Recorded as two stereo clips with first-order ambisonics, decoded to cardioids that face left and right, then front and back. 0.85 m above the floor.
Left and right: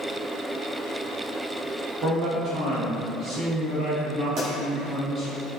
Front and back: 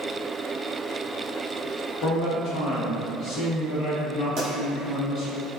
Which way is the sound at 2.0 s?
35° right.